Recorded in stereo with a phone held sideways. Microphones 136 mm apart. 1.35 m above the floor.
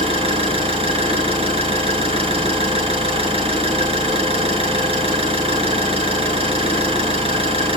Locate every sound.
0.0 s an engine running: 45° right (ahead or behind), 6.5 m